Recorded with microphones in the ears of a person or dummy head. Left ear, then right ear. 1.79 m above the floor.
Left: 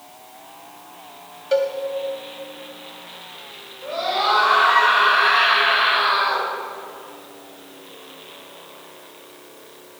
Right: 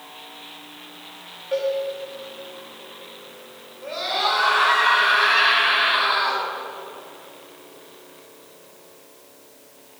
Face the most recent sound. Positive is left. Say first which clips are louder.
# left 2 dB
turn(degrees=-15)  # may be behind; listen again after turning